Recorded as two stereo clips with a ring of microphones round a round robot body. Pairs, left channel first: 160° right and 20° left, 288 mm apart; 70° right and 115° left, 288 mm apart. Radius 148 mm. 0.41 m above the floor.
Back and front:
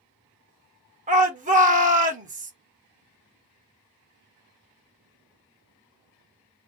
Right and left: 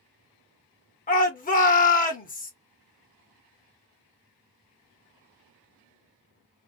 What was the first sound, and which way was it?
A shout, 25° right.